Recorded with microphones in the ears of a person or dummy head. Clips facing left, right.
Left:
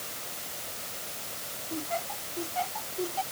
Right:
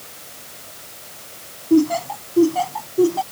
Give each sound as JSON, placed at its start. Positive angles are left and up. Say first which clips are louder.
{"t": 1.7, "sound": "laughter", "louder": "right 19 dB", "side_deg": -80}